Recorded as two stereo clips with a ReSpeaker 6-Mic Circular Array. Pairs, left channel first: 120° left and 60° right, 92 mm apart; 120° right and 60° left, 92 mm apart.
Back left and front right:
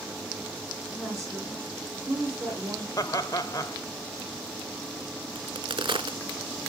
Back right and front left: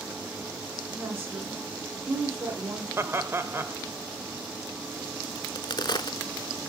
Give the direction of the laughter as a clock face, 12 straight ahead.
8 o'clock.